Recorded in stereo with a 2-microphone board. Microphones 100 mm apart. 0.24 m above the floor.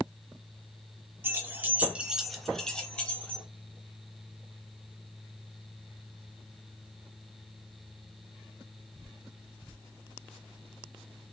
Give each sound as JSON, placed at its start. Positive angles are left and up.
{"t": 1.2, "sound": "keys jangling", "side_deg": -20, "distance_m": 1.0}